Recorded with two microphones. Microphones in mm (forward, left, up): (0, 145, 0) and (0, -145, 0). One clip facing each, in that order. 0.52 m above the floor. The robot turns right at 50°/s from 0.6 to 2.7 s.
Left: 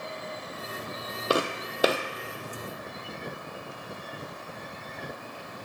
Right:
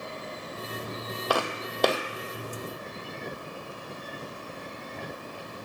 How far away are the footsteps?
About 0.8 m.